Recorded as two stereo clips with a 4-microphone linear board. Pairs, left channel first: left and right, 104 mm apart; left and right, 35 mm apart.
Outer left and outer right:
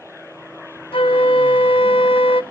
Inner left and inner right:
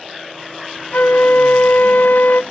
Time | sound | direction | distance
0.9 | a flute | 60° left (ahead or behind) | 0.5 m